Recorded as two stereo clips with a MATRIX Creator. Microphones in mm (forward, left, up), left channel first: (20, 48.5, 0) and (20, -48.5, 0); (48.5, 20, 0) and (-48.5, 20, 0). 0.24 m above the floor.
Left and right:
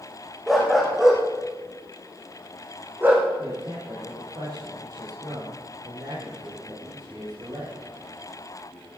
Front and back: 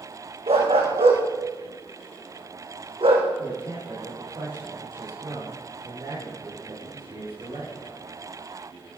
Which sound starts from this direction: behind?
A dog barking, at 0.5 s.